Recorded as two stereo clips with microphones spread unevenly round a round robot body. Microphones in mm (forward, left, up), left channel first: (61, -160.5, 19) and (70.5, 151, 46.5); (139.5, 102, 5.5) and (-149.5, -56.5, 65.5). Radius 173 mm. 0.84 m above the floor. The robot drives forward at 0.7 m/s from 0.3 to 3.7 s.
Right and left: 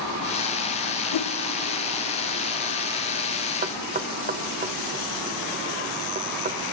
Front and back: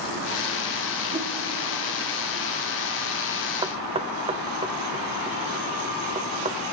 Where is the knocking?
125° left, 0.5 m; by 6.6 s 135° left, 0.6 m.